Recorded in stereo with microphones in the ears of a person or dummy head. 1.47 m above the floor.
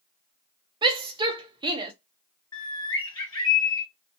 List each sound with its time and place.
0.8 s a shout: 20° right (ahead or behind), 0.6 m
2.5 s a bird: 20° left (ahead or behind), 1.6 m